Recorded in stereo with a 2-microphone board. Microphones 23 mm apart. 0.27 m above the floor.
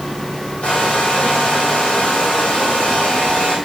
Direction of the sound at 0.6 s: 65° left (ahead or behind).